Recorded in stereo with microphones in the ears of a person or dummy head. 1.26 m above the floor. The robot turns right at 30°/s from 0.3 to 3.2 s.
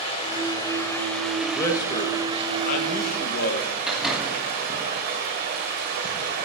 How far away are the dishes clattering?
No dishes clattering in this recording.